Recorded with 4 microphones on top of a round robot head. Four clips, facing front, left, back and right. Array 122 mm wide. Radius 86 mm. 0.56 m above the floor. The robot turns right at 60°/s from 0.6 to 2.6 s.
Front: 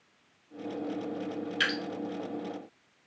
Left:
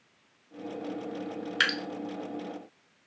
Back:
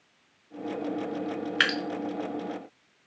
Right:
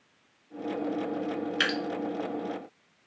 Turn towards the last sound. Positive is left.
turn(degrees=-140)